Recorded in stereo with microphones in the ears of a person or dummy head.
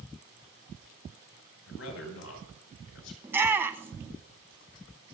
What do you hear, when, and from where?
1.7 s a man speaking: 80° left, 5.5 m; by 3.1 s 85° left, 4.5 m
3.2 s a shout: 10° right (ahead or behind), 0.7 m